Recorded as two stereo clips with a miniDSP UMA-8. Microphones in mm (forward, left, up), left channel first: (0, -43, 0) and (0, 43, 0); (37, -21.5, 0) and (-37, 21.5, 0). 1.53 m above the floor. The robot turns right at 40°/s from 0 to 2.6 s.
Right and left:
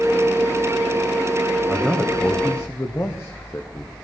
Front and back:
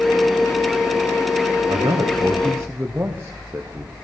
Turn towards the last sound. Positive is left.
turn(degrees=-150)